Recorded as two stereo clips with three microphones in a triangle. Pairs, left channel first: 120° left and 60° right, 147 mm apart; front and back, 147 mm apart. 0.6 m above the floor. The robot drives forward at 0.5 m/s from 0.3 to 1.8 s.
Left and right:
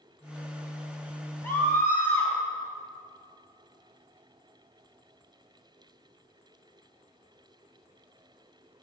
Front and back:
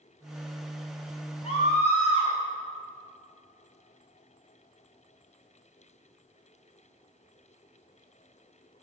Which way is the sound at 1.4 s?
45° left.